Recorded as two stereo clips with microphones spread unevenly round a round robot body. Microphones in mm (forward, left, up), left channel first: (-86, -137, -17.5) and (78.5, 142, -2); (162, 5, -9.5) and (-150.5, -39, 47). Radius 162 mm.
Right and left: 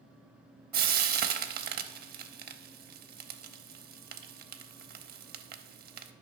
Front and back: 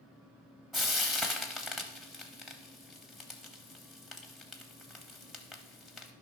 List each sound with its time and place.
0.7 s frying: 110° left, 0.6 m